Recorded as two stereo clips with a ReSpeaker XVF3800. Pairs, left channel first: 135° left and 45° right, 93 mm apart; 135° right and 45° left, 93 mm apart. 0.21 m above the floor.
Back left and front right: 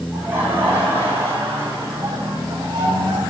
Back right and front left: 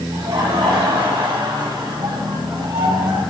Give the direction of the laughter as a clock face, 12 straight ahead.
11 o'clock.